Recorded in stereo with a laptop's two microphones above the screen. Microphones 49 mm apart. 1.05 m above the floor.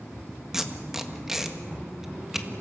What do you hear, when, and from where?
0.5 s tape being pulled: 10° right (ahead or behind), 1.7 m